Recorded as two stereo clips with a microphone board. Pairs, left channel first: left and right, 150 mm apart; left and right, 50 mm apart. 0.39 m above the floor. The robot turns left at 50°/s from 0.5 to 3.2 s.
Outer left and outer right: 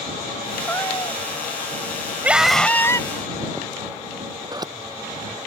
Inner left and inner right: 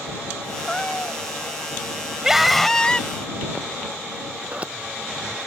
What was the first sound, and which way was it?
A cat meowing, 10° left (ahead or behind).